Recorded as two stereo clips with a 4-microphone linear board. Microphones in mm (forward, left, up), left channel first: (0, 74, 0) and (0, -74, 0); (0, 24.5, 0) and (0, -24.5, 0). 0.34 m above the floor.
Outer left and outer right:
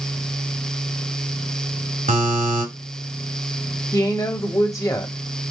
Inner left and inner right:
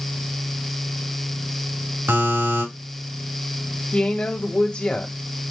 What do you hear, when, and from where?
2.1 s a buzzer: 75° right (ahead or behind), 5 m
3.9 s a woman speaking: 25° left (ahead or behind), 1.8 m